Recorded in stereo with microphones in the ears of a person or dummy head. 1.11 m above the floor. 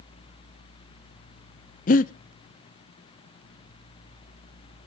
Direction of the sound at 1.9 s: 35° left (ahead or behind).